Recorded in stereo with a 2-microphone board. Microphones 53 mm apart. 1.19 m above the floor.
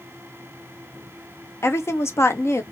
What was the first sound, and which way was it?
A woman speaking, 55° left (ahead or behind).